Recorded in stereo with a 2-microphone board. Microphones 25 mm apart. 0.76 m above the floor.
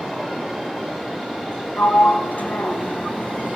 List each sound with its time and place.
1.8 s a sliding door: 85° left, 2.5 m